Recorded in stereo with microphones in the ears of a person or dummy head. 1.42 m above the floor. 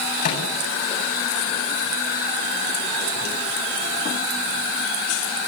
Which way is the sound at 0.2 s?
50° left (ahead or behind).